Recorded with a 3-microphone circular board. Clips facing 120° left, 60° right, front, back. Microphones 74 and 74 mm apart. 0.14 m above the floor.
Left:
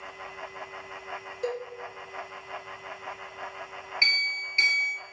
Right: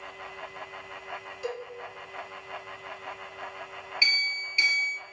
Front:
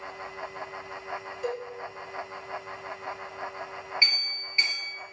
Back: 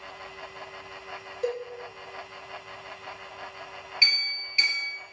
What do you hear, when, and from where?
1.4 s a cowbell: 155° left, 1.0 m
4.0 s a clink: 65° left, 1.4 m